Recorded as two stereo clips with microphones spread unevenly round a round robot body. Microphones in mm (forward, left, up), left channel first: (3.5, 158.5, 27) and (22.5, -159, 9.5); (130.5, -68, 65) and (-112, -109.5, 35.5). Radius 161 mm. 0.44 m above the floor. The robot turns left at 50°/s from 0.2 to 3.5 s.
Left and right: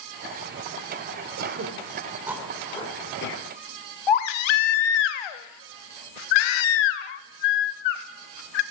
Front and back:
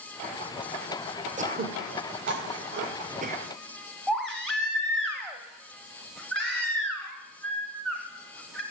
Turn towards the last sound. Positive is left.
turn(degrees=100)